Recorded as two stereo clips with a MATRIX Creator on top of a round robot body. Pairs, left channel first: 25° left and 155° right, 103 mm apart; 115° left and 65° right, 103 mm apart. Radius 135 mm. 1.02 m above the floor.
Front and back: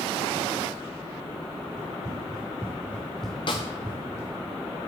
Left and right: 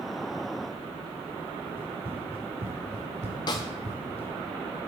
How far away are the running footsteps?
About 3 m.